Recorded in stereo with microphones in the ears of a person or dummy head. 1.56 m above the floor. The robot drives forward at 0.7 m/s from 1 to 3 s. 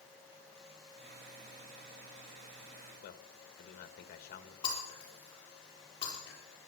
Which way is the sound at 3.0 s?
50° left (ahead or behind).